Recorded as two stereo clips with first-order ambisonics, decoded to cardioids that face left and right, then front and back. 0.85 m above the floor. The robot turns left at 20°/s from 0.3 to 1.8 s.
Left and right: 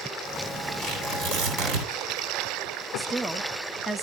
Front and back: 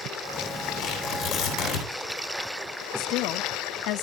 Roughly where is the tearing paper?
Ahead right.